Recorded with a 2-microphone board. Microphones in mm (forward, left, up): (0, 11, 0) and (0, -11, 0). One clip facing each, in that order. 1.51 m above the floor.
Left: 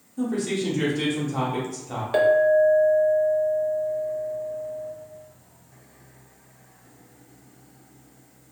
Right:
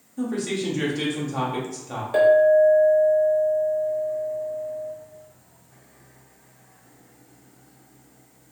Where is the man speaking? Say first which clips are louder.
Left 1 dB; 15° right (ahead or behind), 1.2 m.